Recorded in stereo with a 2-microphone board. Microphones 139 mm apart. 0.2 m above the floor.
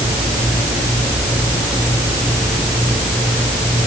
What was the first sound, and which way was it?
Only background noise.